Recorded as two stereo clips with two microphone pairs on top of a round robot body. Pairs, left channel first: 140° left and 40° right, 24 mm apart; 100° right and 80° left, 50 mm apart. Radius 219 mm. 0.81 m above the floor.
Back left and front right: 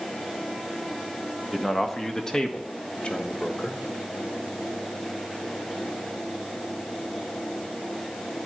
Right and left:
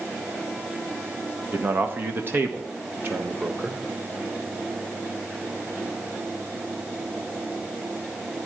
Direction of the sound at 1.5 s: 45° left.